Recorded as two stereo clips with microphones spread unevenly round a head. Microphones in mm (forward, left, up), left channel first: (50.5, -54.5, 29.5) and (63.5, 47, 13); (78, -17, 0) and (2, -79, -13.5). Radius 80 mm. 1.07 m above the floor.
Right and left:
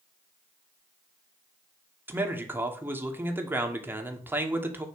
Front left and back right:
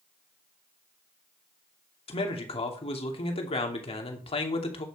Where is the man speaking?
15° left, 2.5 m.